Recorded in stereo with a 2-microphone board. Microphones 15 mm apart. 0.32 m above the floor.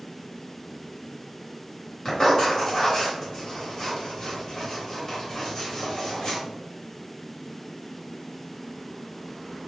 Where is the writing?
30° left (ahead or behind), 1.8 m.